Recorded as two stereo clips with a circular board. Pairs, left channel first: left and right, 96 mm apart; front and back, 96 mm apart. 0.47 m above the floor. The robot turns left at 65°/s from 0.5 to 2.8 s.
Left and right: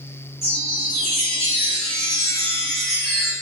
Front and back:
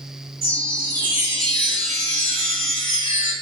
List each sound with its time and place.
0.4 s a chime: 155° left, 1.1 m; by 3.3 s 5° left, 1.1 m